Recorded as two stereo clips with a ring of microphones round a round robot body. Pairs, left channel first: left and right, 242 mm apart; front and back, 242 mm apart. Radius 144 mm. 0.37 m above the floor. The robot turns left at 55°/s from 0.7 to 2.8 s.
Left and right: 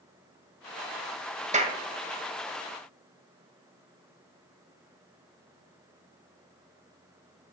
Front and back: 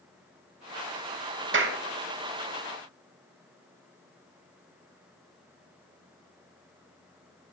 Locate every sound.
1.5 s a clap: 150° right, 2.5 m; by 1.8 s 160° right, 2.5 m